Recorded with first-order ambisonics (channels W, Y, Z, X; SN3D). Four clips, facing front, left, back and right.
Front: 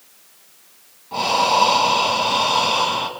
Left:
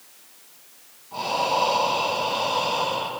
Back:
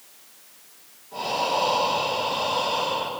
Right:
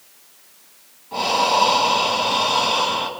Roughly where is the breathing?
Ahead right.